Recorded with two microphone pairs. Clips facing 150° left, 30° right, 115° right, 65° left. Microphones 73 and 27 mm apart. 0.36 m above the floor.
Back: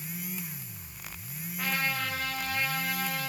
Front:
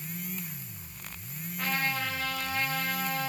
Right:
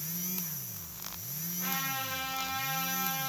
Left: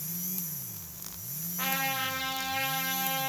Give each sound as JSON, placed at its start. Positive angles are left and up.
{"t": 1.6, "sound": "a trumpet", "azimuth_deg": 65, "distance_m": 8.5}